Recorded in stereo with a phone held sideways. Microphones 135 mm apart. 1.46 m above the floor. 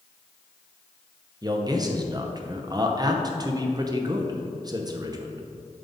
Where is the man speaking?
30° right (ahead or behind), 0.7 m.